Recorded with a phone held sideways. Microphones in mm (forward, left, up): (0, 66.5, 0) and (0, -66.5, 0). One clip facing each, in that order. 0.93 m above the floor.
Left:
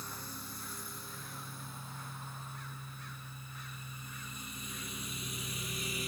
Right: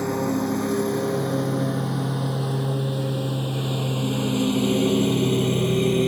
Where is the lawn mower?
70° right (ahead or behind); by 6.1 s 65° right (ahead or behind).